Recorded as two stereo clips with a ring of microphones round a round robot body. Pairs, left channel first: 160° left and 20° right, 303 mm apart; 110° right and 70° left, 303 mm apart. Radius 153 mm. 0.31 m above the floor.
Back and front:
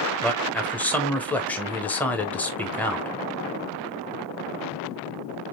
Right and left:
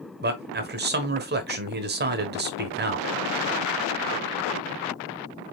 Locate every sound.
0.2 s a man speaking: 75° left, 1.0 m